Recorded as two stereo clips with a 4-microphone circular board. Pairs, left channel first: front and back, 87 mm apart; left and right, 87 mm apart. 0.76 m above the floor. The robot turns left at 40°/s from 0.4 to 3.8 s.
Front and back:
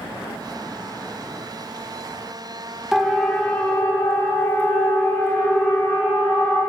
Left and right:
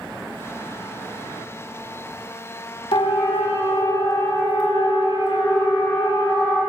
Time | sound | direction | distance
2.9 | a siren | 95° left | 2 m